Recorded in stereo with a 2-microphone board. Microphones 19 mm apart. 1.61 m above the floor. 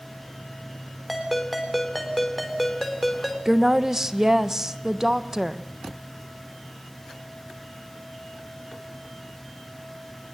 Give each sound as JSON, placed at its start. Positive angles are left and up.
{"t": 1.1, "sound": "a ringtone", "side_deg": 5, "distance_m": 4.0}
{"t": 3.5, "sound": "a woman speaking", "side_deg": -25, "distance_m": 1.2}